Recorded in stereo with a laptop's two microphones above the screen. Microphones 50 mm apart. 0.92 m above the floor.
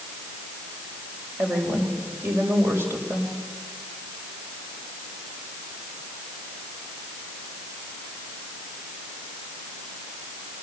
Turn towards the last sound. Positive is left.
turn(degrees=-55)  # may be behind; listen again after turning